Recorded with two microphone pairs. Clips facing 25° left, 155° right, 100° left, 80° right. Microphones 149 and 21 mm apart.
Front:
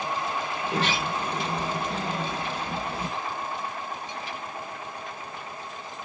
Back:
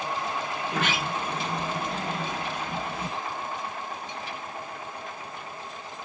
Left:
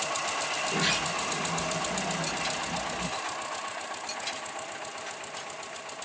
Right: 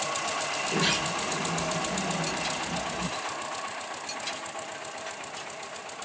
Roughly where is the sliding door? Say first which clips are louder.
Front 2 dB, right 1 dB; ahead.